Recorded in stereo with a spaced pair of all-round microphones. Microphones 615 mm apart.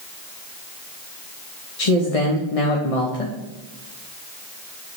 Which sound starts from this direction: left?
A man speaking, at 1.8 s.